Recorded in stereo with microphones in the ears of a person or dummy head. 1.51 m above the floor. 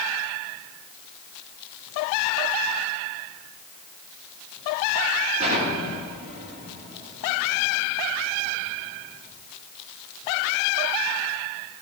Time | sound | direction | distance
5.4 | an explosion | 40° right (ahead or behind) | 2 m